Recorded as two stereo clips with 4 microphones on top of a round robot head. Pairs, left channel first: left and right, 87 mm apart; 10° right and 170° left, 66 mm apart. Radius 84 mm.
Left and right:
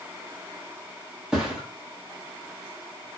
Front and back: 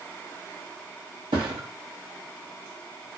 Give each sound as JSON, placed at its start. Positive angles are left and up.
{"t": 1.3, "sound": "a thud", "azimuth_deg": -170, "distance_m": 1.3}